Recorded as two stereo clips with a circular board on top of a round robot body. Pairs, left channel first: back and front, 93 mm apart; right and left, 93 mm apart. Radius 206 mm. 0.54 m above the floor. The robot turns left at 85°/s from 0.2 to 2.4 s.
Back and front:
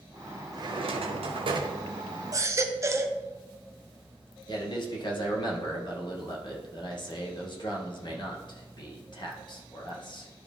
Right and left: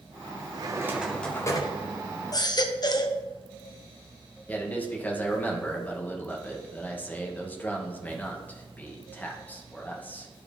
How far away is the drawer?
About 0.9 m.